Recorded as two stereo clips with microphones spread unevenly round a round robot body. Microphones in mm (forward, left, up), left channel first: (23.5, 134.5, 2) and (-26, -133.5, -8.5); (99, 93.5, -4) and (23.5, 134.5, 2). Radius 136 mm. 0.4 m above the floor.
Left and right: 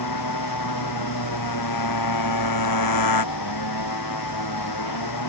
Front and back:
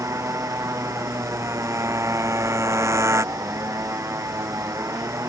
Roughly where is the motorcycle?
Left.